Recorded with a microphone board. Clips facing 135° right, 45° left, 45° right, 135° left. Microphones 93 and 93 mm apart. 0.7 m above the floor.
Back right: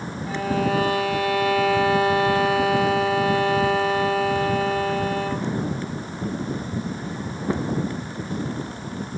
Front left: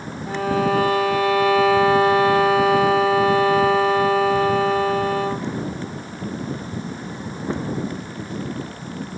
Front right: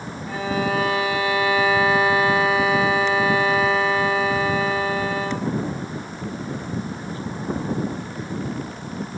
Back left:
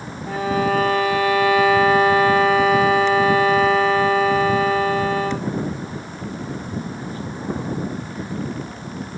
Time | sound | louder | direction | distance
0.3 | a violin | front left 3 dB, back left 4 dB | 90° left | 1.0 m